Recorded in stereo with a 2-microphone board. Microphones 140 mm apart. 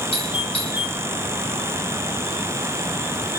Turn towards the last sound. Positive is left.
turn(degrees=45)  # may be behind; listen again after turning